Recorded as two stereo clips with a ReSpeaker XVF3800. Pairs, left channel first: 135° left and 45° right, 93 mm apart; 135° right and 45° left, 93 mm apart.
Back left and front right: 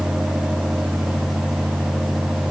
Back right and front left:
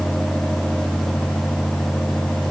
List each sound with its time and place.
Only background noise.